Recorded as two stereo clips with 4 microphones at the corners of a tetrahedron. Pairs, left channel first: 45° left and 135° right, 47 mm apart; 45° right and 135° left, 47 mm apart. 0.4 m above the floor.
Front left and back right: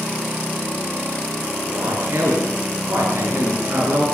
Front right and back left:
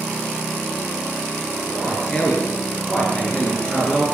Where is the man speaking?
110° right, 7.5 m.